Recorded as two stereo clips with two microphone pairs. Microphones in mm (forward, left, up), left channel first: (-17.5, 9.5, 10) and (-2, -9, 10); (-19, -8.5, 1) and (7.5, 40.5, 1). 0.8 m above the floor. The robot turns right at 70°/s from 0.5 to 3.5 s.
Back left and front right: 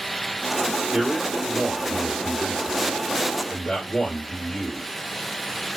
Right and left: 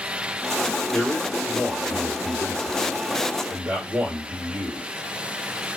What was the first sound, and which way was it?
A man speaking, 60° right.